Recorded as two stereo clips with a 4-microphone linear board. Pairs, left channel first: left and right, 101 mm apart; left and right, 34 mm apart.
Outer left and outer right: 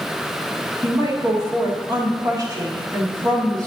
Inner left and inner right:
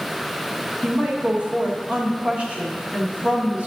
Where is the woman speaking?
35° right (ahead or behind), 1.5 m.